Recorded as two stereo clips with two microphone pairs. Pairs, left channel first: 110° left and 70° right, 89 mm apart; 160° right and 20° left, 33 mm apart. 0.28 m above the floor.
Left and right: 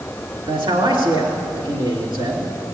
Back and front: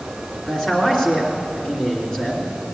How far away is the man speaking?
About 3 m.